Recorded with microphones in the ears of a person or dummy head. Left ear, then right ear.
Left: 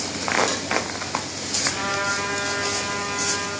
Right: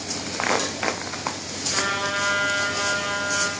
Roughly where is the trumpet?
Right.